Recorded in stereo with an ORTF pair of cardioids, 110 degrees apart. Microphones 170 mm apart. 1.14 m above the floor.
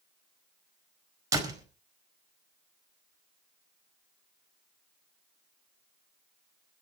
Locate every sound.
1.3 s a door slam: 20° right, 4.5 m